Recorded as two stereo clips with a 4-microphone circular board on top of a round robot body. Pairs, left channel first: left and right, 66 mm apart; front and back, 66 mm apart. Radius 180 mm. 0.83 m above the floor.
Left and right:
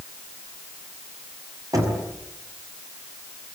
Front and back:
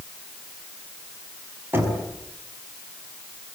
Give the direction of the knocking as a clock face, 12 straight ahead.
4 o'clock.